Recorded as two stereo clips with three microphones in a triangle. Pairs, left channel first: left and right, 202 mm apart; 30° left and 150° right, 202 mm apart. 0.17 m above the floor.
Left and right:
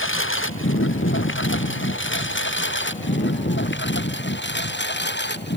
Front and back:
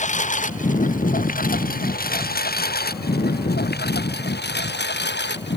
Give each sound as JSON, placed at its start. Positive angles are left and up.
{"t": 0.0, "sound": "a lawn mower", "azimuth_deg": 85}